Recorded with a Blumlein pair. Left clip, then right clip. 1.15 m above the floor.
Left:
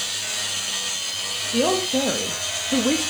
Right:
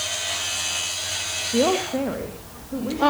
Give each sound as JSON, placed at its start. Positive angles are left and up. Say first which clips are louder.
{"t": 1.5, "sound": "a man speaking", "louder": "even", "azimuth_deg": -15, "distance_m": 1.5}